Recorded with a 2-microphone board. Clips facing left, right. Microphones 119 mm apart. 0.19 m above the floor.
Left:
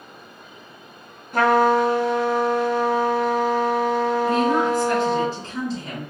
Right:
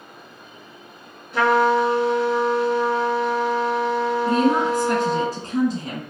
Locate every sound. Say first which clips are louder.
1.3 s a trumpet: left 1 dB; 50° left (ahead or behind), 1.6 m
4.3 s a woman speaking: right 3 dB; 35° right (ahead or behind), 1.9 m